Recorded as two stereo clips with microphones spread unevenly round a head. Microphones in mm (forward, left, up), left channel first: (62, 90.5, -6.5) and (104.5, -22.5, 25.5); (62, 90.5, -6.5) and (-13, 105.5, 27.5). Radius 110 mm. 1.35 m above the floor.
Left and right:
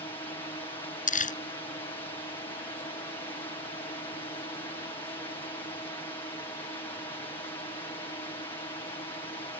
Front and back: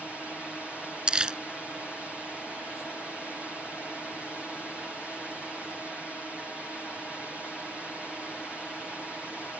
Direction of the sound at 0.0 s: 70° left.